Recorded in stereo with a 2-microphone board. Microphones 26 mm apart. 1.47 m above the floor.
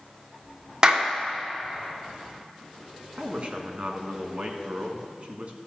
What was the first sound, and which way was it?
A clap, 30° right (ahead or behind).